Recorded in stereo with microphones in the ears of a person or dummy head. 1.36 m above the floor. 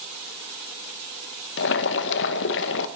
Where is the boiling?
55° left (ahead or behind), 0.9 m.